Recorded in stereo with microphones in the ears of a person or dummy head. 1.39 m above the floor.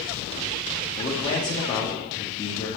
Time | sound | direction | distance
1.0 | a man speaking | 25° left (ahead or behind) | 2 m